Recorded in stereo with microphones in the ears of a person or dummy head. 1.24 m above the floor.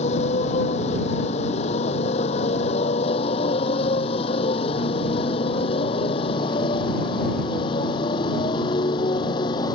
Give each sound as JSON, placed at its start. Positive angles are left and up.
{"t": 0.0, "sound": "a motorcycle", "side_deg": 40}